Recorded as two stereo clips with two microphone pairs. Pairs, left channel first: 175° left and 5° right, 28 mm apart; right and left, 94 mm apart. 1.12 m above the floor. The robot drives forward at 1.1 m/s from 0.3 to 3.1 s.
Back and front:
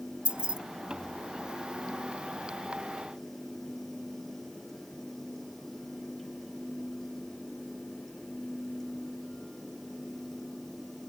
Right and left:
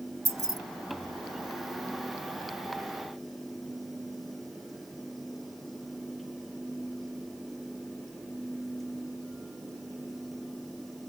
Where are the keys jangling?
35° left; by 0.6 s 45° left.